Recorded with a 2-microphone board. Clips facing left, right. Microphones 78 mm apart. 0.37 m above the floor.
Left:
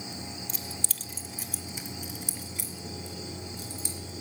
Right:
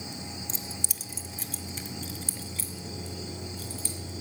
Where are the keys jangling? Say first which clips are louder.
Even; 30° right (ahead or behind), 0.5 m; by 4.2 s 20° left (ahead or behind), 3.5 m.